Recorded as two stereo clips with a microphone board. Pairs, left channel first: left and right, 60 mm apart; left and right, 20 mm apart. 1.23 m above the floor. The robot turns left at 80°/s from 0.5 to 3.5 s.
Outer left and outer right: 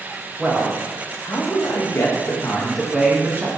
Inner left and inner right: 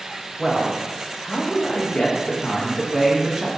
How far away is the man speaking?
About 1.7 m.